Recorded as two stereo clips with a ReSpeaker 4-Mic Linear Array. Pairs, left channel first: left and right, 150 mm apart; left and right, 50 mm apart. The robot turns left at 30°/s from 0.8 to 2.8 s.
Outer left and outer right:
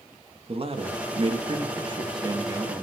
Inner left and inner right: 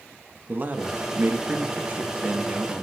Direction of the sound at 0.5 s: 95° right.